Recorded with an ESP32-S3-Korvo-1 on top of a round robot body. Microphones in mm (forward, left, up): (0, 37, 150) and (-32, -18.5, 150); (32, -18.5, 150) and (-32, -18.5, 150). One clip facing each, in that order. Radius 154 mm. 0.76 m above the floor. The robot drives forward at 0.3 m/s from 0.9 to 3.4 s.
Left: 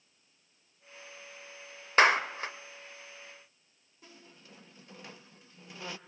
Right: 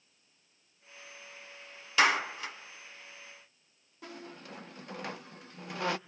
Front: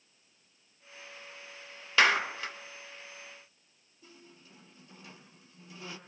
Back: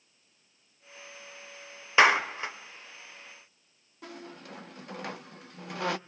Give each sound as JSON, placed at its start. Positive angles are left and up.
{"t": 2.0, "sound": "a clap", "azimuth_deg": 110, "distance_m": 2.5}
{"t": 4.0, "sound": "a squeak", "azimuth_deg": -150, "distance_m": 0.7}